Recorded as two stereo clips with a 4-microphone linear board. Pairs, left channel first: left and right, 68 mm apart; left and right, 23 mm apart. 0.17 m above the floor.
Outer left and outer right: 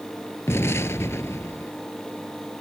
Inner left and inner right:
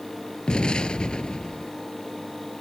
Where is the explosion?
45° left (ahead or behind).